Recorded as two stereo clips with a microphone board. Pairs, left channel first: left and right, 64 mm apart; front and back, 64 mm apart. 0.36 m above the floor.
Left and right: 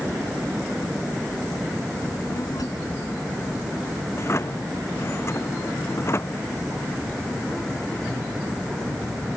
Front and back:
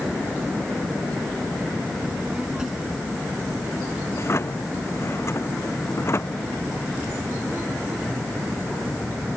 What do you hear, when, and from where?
2.0 s a child speaking: 105° left; by 4.0 s 100° left
4.1 s a drawer: 45° left